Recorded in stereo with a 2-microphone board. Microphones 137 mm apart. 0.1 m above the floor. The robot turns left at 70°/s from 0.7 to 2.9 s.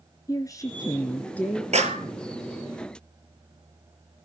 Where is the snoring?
No snoring in this recording.